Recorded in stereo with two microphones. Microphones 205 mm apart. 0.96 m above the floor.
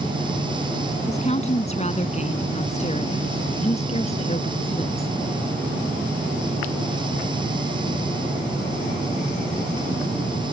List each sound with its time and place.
1.1 s a woman speaking: 35° left (ahead or behind); by 5.1 s 30° left (ahead or behind)